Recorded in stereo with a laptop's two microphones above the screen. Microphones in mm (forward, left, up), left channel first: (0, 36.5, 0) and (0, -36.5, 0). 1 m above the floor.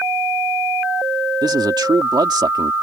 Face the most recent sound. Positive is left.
turn(degrees=-70)  # may be behind; listen again after turning